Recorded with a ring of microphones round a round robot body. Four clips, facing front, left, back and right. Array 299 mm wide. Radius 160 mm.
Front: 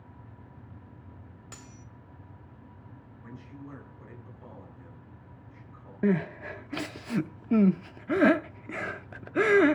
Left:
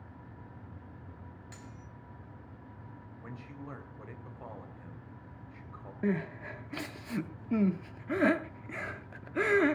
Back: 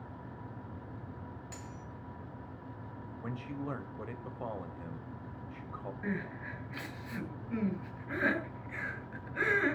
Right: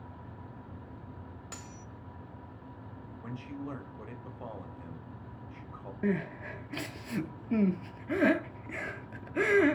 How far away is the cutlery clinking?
About 2 m.